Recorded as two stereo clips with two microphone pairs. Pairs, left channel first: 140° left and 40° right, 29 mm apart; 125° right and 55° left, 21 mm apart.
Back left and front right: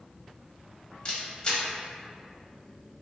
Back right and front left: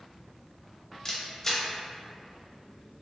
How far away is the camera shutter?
About 0.6 m.